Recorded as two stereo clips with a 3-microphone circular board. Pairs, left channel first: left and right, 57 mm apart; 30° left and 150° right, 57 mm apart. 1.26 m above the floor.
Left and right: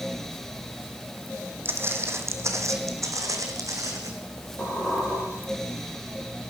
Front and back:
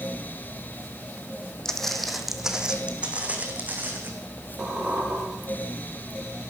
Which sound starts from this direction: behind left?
A squeak, at 4.6 s.